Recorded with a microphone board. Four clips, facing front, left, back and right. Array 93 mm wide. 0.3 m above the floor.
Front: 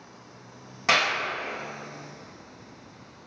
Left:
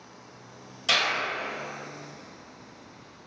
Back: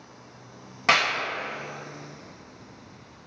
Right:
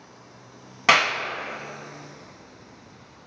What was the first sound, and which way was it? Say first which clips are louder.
A clap: right 8 dB, back 1 dB; 105° right.